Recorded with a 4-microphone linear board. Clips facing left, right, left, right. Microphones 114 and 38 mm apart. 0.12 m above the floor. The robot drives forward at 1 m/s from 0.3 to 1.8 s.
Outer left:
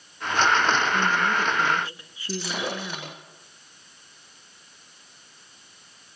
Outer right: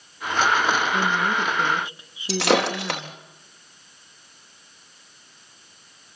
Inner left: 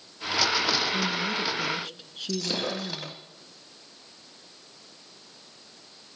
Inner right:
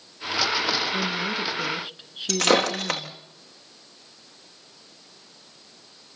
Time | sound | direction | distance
0.9 | a woman speaking | 20° right (ahead or behind) | 1.2 m
2.3 | breaking glass | 70° right (ahead or behind) | 3.5 m